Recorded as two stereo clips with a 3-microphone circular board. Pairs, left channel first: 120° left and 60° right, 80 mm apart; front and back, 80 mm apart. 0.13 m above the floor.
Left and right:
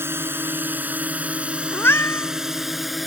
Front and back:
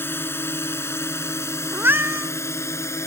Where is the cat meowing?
145° left.